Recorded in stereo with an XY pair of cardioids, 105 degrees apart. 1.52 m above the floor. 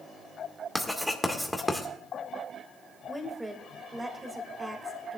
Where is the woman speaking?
15° right, 2.5 m.